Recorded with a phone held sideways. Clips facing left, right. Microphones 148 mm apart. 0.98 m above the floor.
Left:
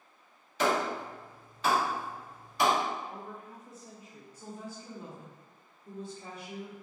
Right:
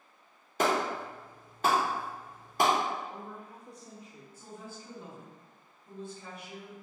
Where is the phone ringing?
I don't hear a phone ringing.